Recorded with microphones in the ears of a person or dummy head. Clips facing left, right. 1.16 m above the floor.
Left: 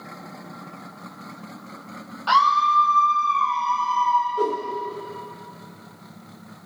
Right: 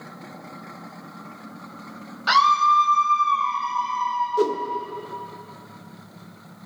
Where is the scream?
25° right (ahead or behind), 0.9 m.